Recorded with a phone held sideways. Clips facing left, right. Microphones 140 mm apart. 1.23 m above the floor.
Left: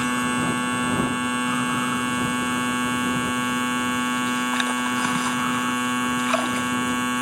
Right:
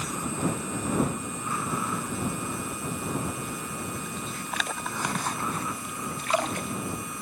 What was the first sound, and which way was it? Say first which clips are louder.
A machine running: left 7 dB; 85° left.